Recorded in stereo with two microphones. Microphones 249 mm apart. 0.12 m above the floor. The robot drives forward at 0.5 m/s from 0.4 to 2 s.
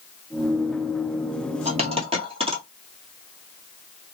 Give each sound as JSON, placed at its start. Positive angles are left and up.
{"t": 1.6, "sound": "a dropped coin", "side_deg": -25, "distance_m": 1.0}